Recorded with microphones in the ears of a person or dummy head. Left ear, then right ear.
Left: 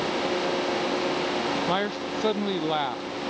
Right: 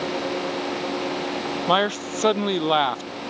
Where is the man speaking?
30° right (ahead or behind).